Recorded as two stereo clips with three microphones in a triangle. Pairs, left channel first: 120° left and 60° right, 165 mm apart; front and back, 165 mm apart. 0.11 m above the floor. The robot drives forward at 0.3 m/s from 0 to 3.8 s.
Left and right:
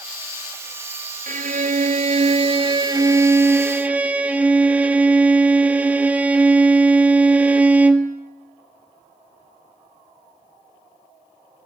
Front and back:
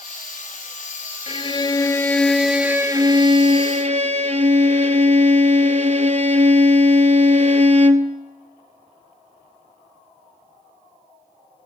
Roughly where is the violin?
Ahead right.